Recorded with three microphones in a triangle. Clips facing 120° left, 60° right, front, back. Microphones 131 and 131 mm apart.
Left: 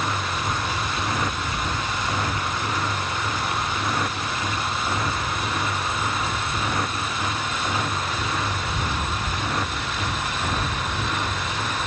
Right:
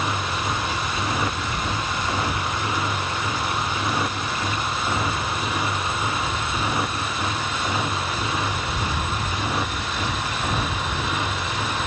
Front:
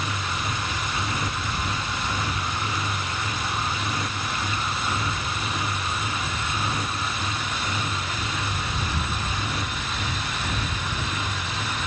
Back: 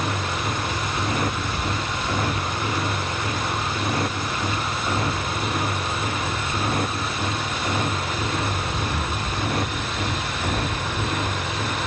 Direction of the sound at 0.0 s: 145° right.